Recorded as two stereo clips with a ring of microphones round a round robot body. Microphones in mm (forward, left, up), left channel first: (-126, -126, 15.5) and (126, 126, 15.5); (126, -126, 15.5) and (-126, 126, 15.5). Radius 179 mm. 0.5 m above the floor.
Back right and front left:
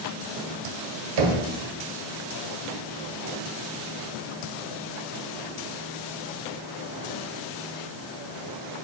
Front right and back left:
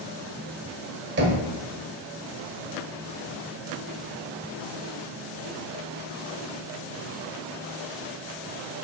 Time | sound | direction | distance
1.2 | knocking | 75° left | 1.2 m